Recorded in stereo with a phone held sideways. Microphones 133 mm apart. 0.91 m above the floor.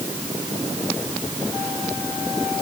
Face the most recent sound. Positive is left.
No sound to turn to.